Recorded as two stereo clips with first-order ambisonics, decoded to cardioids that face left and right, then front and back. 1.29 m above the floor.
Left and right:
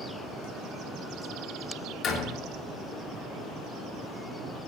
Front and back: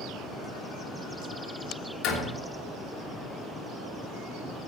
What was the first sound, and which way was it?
A door slam, 35° left.